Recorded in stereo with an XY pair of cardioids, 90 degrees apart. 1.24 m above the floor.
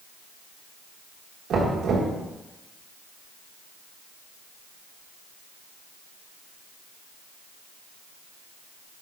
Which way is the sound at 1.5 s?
65° right.